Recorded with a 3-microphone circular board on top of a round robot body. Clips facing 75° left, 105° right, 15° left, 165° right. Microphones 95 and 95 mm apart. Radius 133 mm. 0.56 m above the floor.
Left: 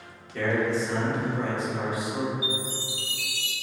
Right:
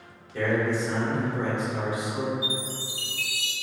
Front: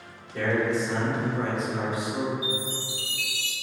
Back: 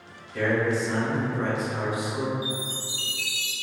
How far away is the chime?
About 1.0 m.